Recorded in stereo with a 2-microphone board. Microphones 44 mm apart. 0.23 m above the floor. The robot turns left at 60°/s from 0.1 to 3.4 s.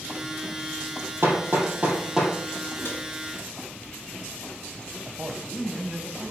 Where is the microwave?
70° left (ahead or behind), 3.5 m.